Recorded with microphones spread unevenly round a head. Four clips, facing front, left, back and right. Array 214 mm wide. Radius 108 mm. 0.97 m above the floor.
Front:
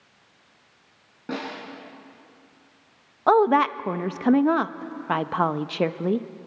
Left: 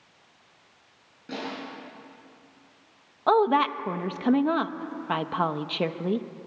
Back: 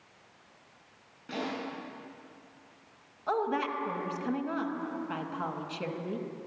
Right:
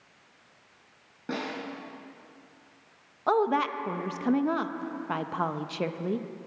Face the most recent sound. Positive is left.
turn(degrees=15)